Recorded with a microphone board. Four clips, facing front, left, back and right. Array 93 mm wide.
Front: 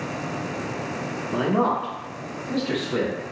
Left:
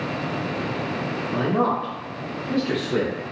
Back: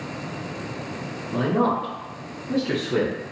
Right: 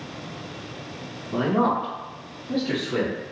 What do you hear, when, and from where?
1.3 s a man speaking: 5° right, 1.0 m; by 3.1 s 155° left, 1.1 m